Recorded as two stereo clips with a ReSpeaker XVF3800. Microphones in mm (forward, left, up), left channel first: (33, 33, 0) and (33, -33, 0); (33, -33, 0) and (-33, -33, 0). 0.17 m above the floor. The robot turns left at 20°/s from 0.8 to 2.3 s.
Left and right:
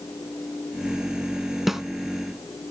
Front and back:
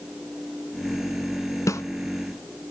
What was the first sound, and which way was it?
A snare drum, 5° right.